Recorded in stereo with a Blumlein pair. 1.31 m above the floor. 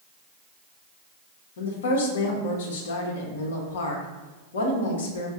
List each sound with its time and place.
1.6 s a woman speaking: 60° left, 1.0 m